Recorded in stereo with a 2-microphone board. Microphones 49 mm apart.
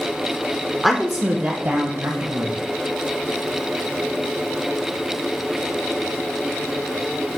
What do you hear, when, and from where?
0.8 s a woman speaking: centre (ahead or behind), 0.7 m; by 2.5 s 60° right (ahead or behind), 1.6 m